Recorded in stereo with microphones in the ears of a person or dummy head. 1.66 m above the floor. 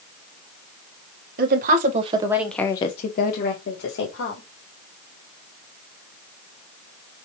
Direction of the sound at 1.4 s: 55° right (ahead or behind).